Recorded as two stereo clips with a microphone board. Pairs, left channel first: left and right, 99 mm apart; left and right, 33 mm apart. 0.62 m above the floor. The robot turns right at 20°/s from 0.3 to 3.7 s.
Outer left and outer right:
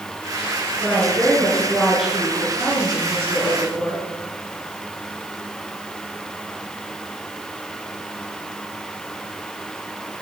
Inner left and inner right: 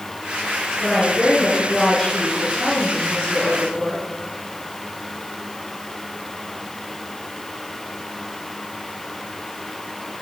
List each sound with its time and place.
0.8 s a woman speaking: 155° left, 9 m; by 4.0 s 145° right, 9 m